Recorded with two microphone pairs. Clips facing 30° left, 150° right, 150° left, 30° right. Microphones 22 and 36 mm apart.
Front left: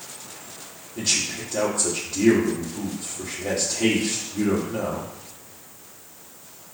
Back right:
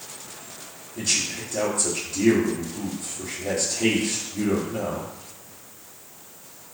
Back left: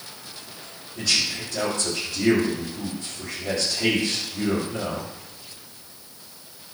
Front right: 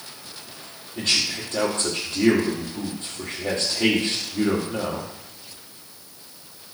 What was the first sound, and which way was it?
A man speaking, 30° right.